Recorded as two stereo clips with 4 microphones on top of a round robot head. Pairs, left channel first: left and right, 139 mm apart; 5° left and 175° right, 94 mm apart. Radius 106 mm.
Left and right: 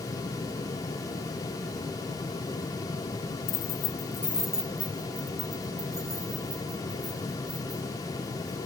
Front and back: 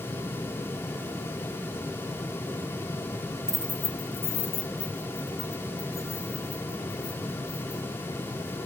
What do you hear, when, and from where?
3.5 s keys jangling: 100° left, 0.8 m; by 8.6 s 30° right, 6.5 m